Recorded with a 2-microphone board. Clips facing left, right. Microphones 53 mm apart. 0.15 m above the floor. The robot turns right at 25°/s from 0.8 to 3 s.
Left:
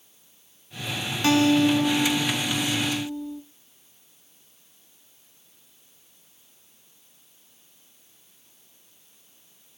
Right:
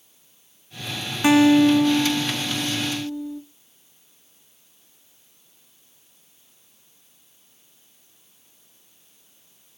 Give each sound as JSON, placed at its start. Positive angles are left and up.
{"t": 1.2, "sound": "a guitar", "side_deg": -20, "distance_m": 1.5}